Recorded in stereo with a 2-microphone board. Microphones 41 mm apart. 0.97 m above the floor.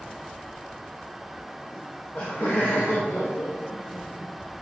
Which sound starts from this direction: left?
Laughter, at 1.7 s.